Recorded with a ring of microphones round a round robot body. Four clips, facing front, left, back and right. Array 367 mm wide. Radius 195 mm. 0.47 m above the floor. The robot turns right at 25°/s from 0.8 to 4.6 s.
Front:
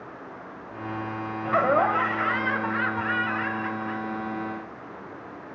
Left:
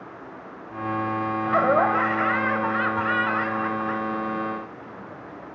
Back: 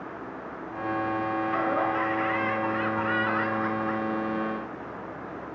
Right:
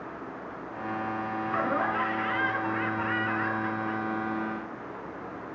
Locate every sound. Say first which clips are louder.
1.4 s laughter: left 9 dB, front 8 dB; 50° left, 2.5 m; by 5.5 s 130° left, 2.5 m